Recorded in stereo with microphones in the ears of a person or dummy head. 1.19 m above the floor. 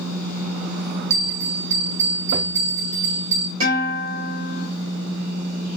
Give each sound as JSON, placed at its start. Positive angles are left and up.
{"t": 1.1, "sound": "a bell", "side_deg": -55, "distance_m": 1.7}
{"t": 3.6, "sound": "a guitar", "side_deg": -70, "distance_m": 3.5}